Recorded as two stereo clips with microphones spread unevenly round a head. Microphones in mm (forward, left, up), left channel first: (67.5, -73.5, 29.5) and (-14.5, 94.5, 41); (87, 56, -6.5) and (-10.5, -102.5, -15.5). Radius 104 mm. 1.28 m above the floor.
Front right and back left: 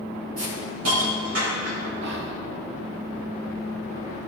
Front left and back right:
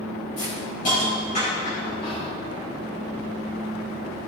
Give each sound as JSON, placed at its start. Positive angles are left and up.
{"t": 0.4, "sound": "a hiss", "azimuth_deg": 115, "distance_m": 4.5}
{"t": 2.0, "sound": "whispering", "azimuth_deg": 125, "distance_m": 0.9}